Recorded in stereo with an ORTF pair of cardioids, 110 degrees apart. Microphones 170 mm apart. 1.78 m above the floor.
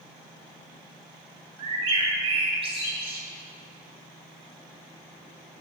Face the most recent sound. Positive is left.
turn(degrees=-35)